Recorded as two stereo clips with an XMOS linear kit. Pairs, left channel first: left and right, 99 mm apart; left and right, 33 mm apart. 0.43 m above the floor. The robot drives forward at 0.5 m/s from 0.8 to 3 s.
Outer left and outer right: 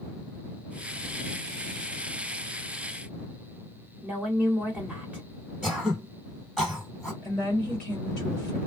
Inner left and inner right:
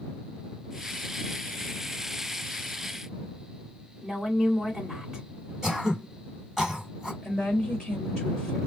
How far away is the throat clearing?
About 2 m.